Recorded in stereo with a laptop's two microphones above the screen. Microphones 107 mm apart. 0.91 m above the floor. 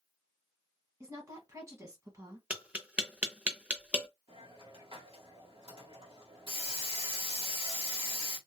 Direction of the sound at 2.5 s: 10° right (ahead or behind).